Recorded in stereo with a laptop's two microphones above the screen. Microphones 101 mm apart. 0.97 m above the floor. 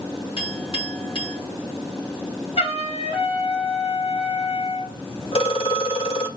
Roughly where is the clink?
Left.